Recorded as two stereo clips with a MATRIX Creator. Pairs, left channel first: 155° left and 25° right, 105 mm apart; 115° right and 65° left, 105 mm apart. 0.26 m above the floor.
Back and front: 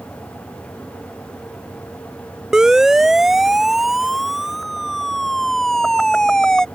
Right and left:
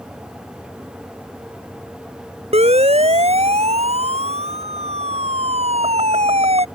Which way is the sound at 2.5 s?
65° left.